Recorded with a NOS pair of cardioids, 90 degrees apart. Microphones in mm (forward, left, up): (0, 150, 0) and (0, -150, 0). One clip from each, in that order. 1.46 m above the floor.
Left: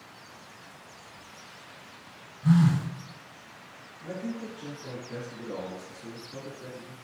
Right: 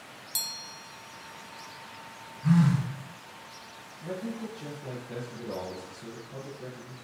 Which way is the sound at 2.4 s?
Straight ahead.